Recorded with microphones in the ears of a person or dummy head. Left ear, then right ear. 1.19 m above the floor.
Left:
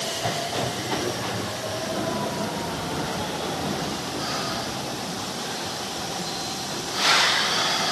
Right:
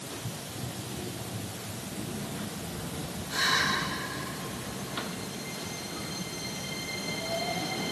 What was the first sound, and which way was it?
Only background noise.